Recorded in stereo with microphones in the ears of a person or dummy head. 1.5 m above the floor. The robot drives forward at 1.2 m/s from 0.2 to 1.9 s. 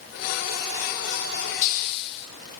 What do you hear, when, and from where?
1.6 s a hiss: 45° left (ahead or behind), 0.8 m; by 2.3 s 60° left (ahead or behind), 0.6 m